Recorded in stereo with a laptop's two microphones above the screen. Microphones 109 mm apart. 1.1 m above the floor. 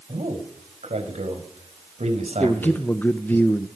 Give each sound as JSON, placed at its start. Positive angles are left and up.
{"t": 0.1, "sound": "a man speaking", "side_deg": -90, "distance_m": 5.0}
{"t": 2.4, "sound": "a man speaking", "side_deg": 15, "distance_m": 0.8}